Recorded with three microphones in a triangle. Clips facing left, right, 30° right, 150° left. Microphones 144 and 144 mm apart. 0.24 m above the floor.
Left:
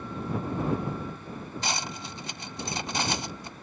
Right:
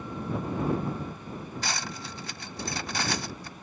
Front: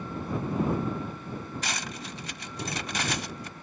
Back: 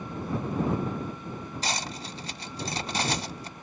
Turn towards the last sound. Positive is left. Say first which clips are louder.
# left 4 dB, back 2 dB
turn(degrees=140)